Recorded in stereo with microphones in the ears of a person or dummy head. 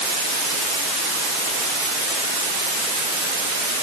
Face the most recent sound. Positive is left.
No sound to turn to.